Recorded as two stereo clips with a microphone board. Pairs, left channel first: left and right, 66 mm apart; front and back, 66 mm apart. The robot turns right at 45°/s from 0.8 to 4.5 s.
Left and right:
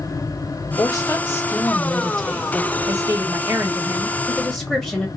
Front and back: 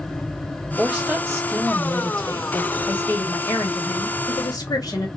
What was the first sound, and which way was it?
A woman speaking, 115° left.